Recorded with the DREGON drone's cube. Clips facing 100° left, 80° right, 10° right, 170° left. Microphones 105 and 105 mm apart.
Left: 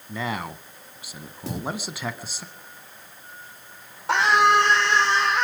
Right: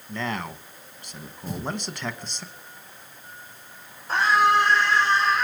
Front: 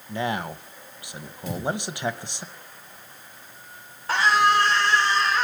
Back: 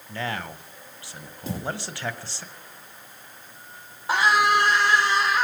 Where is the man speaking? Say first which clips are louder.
Left 1 dB, front 4 dB; 30° left, 1.0 m.